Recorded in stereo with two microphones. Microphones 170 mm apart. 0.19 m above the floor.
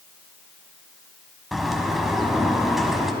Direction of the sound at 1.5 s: Centre (ahead or behind).